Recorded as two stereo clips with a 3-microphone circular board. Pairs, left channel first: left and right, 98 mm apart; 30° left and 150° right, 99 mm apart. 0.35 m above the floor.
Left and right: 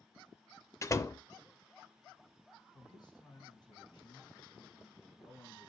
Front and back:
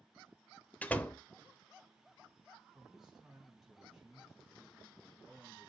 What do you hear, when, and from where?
0.8 s a door slam: 90° left, 0.6 m
2.7 s a man speaking: 125° left, 3 m